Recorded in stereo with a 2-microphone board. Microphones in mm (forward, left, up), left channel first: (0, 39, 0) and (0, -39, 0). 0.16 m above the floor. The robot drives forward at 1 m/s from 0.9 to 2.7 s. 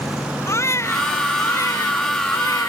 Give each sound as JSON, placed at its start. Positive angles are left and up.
{"t": 0.5, "sound": "a baby crying", "side_deg": 35}